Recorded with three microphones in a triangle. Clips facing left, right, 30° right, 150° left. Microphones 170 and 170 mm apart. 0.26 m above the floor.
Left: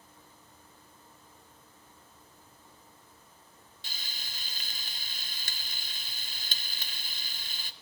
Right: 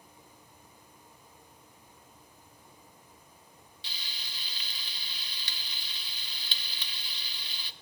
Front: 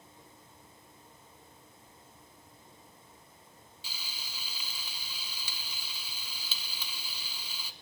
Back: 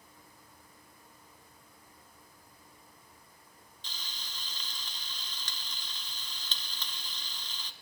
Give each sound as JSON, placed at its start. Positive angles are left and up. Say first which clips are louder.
{"t": 3.8, "sound": "frying", "louder": "even, even", "azimuth_deg": 50, "distance_m": 0.8}